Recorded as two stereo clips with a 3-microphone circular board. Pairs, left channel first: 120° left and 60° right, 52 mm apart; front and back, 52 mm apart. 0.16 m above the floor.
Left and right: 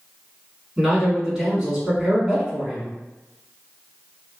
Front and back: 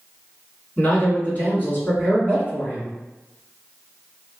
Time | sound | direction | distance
0.8 | a man speaking | 10° left | 1.8 m